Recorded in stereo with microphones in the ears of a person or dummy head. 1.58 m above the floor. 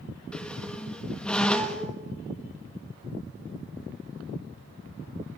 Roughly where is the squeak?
Centre.